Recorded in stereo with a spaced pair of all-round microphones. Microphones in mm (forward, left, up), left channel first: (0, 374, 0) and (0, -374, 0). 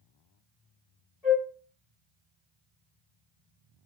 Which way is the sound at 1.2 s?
55° left (ahead or behind).